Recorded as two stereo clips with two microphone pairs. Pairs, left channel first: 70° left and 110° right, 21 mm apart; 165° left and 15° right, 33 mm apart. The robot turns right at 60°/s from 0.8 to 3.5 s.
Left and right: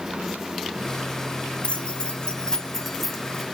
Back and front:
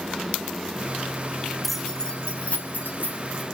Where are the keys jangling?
75° left, 1.6 m; by 3.5 s 175° right, 1.6 m.